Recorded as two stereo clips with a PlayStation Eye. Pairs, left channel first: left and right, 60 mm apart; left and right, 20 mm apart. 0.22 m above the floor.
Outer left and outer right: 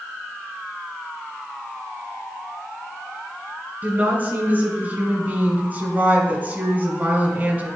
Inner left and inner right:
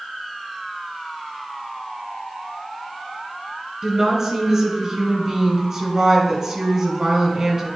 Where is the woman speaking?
25° right (ahead or behind), 2.5 m.